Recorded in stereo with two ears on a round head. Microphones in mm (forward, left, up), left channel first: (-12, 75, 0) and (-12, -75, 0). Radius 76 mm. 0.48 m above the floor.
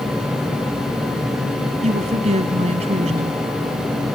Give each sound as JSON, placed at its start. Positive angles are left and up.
{"t": 1.8, "sound": "a woman speaking", "side_deg": -40}